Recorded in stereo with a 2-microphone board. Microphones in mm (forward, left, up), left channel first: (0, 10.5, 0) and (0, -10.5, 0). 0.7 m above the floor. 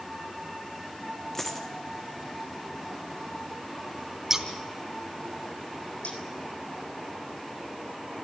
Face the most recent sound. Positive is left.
turn(degrees=75)  # may be behind; listen again after turning